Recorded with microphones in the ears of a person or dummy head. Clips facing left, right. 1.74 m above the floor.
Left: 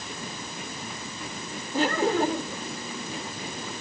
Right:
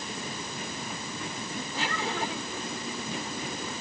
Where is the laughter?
40° left (ahead or behind).